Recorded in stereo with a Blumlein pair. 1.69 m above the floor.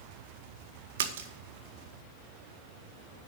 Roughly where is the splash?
Ahead right.